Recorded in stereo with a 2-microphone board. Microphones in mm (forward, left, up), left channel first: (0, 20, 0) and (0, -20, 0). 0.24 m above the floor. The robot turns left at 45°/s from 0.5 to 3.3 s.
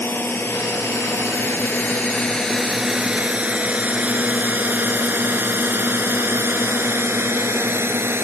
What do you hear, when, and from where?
0.0 s a drone: 60° left (ahead or behind); by 8.2 s 70° right (ahead or behind)